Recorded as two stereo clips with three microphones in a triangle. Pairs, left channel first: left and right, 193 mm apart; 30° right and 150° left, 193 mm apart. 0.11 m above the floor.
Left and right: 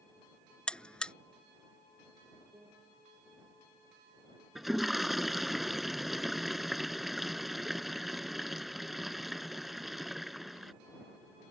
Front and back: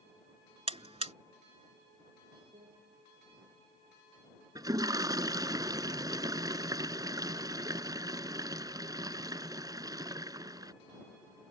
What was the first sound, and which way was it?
A buzzer, 170° left.